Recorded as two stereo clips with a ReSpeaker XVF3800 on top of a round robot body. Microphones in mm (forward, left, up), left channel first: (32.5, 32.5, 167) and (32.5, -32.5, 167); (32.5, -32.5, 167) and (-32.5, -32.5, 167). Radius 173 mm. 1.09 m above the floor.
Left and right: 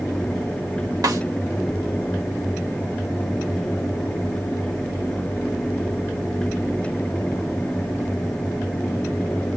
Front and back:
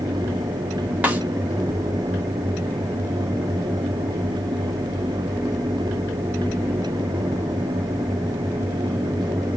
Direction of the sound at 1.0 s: 110° right.